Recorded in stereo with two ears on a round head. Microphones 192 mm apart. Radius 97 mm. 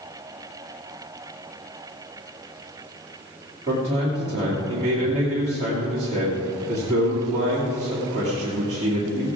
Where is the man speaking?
35° right (ahead or behind), 2.5 m.